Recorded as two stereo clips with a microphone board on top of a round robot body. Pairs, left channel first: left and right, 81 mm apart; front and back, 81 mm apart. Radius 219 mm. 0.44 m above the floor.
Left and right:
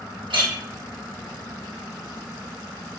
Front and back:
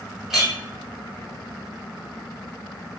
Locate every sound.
0.3 s a clink: 95° right, 1.6 m